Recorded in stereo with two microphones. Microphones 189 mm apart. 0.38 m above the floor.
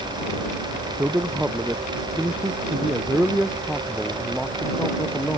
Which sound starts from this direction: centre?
A man speaking, at 1.0 s.